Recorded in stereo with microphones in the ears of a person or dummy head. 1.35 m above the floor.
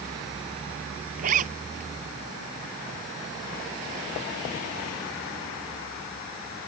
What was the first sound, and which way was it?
A zipper, 50° right (ahead or behind).